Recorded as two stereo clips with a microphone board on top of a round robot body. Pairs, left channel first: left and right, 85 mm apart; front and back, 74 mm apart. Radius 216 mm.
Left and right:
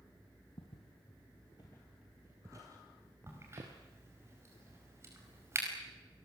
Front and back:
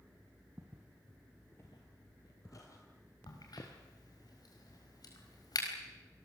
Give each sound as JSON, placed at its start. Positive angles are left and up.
{"t": 0.6, "sound": "footsteps", "azimuth_deg": 110, "distance_m": 1.6}
{"t": 3.3, "sound": "a crack", "azimuth_deg": -30, "distance_m": 4.5}